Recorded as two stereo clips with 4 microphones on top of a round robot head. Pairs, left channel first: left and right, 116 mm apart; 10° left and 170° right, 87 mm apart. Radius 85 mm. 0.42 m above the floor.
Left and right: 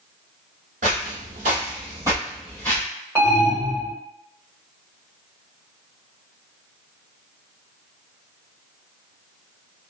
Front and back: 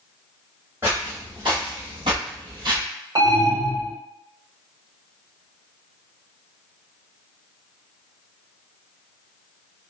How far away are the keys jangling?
No keys jangling in this recording.